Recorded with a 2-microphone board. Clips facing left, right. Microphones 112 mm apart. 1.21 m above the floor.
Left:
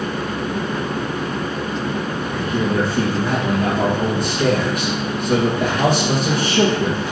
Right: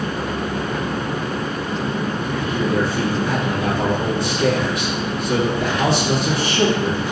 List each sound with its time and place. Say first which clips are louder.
2.2 s a man speaking: left 2 dB; 50° left (ahead or behind), 1.7 m